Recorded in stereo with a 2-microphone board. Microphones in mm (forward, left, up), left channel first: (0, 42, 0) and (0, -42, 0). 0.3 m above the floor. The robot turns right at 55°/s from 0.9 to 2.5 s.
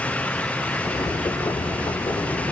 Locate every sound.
Only background noise.